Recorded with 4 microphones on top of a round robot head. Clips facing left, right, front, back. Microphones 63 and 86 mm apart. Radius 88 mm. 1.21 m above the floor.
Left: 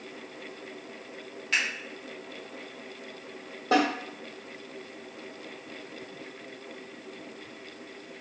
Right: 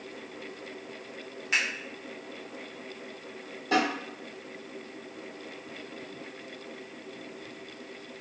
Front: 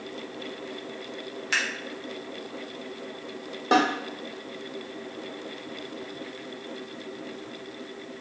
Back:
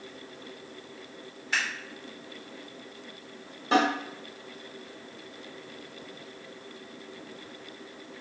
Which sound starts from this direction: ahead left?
A snare drum, at 3.7 s.